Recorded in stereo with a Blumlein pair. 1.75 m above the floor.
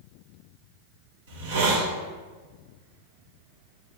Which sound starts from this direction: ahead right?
A hiss, at 1.3 s.